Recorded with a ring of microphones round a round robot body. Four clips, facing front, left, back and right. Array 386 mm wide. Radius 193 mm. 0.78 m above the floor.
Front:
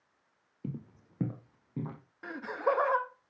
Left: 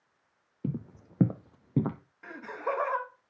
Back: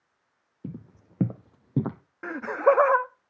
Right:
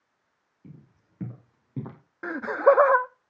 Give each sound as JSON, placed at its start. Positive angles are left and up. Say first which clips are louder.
{"t": 0.6, "sound": "footsteps", "louder": "left 15 dB, back 1 dB", "azimuth_deg": 100, "distance_m": 1.4}
{"t": 2.2, "sound": "laughter", "louder": "right 15 dB, back 9 dB", "azimuth_deg": -120, "distance_m": 0.9}